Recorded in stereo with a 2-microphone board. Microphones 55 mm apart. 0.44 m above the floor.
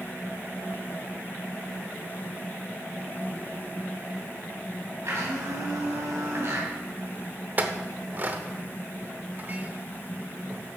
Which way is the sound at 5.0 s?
55° right (ahead or behind).